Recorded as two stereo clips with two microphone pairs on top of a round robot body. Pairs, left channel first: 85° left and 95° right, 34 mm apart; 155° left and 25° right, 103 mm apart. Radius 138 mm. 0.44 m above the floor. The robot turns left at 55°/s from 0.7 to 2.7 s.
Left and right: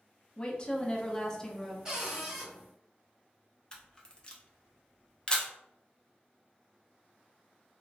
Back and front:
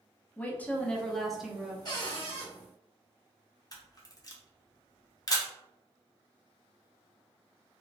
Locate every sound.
0.4 s a woman speaking: 70° left, 0.7 m; by 1.8 s 15° left, 0.7 m
1.9 s a cupboard door: 160° right, 1.4 m; by 2.5 s 170° left, 1.4 m
3.7 s a camera shutter: 125° left, 0.8 m